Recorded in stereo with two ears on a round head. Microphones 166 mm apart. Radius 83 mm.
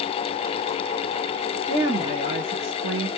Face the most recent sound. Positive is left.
turn(degrees=-65)  # may be behind; listen again after turning